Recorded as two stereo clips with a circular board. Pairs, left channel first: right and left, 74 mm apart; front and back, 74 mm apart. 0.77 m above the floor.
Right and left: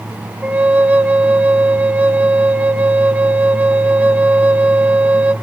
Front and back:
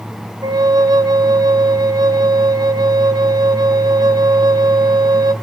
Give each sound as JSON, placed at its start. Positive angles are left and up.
{"t": 0.4, "sound": "a flute", "azimuth_deg": 160, "distance_m": 0.6}